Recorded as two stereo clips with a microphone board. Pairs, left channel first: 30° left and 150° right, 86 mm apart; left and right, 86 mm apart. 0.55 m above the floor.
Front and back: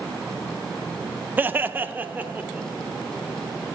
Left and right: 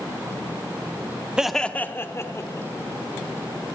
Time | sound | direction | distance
1.4 | laughter | 150° right | 0.6 m